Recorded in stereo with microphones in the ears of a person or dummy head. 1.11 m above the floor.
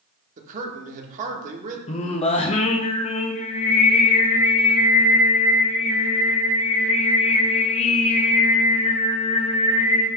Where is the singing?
30° left (ahead or behind), 0.6 m.